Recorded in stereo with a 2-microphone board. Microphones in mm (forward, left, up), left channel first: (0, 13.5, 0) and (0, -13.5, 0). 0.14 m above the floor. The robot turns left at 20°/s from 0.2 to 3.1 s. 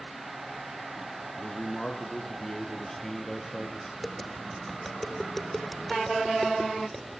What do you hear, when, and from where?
1.4 s a man speaking: 50° left, 3.5 m; by 3.9 s 15° left, 3.5 m
4.0 s tapping: 5° left (ahead or behind), 3 m